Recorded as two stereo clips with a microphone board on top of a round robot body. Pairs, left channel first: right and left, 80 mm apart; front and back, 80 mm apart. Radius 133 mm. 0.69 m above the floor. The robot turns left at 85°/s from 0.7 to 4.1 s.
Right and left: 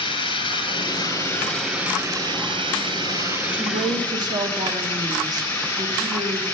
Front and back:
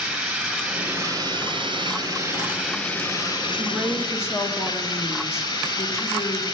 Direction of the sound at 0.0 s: 95° right.